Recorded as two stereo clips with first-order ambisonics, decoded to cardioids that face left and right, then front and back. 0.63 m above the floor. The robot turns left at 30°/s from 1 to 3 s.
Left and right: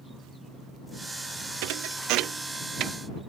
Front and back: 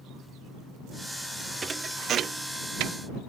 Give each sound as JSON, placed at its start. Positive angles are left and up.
{"t": 1.6, "sound": "a thud", "azimuth_deg": -105}